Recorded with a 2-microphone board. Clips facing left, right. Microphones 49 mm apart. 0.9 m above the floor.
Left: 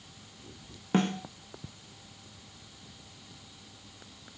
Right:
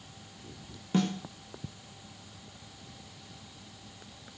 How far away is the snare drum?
About 1.0 m.